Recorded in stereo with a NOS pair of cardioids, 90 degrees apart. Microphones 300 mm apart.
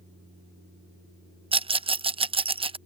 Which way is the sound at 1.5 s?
20° right.